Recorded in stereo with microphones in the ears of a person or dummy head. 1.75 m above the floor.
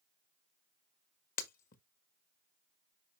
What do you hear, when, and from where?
1.4 s breaking glass: 55° left (ahead or behind), 1.7 m